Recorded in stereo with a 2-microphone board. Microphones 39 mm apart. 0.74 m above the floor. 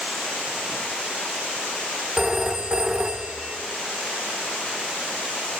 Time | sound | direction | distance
2.2 | a phone ringing | 20° right (ahead or behind) | 1.4 m